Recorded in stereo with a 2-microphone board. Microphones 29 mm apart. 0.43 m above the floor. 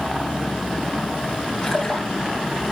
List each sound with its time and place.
1.6 s a splash: 25° left (ahead or behind), 5.5 m